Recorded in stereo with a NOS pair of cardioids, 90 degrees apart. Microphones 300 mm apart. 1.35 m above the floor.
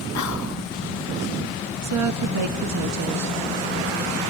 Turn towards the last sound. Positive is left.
turn(degrees=-65)